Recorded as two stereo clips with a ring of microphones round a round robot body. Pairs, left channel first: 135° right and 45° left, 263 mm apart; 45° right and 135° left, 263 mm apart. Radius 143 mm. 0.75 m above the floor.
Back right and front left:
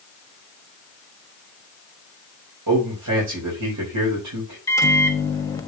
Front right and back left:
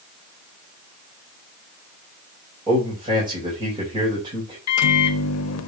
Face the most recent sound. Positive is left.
turn(degrees=-60)